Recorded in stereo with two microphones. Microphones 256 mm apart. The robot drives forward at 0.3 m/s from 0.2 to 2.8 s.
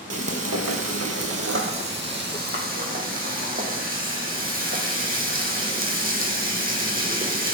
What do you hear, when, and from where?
0.1 s frying: 65° right (ahead or behind), 0.5 m; by 7.5 s 35° right (ahead or behind), 0.8 m